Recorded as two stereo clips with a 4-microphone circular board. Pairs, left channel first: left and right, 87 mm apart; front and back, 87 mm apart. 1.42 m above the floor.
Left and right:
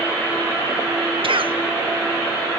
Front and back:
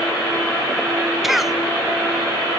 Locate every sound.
1.2 s a cough: 90° right, 1.0 m